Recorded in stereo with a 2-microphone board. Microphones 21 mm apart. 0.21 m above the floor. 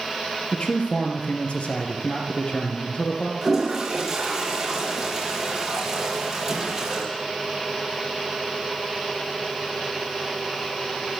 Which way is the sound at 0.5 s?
70° left (ahead or behind).